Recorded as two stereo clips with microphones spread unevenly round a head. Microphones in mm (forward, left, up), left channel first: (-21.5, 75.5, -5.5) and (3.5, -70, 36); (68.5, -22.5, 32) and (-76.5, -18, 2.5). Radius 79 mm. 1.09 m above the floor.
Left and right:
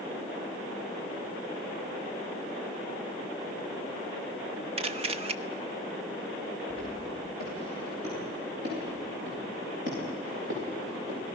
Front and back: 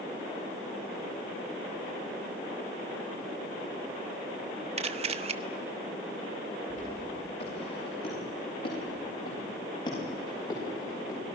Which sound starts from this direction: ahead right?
Footsteps, at 6.7 s.